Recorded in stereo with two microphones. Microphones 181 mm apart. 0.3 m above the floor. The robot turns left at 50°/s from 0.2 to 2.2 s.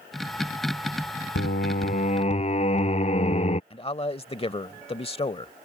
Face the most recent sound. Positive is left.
turn(degrees=35)  # may be behind; listen again after turning